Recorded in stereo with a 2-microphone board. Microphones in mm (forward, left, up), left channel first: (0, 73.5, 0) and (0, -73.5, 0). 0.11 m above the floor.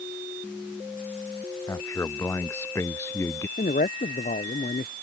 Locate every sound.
1.7 s a man speaking: 20° left (ahead or behind); by 3.5 s 15° left (ahead or behind)
3.6 s a man speaking: 75° left (ahead or behind)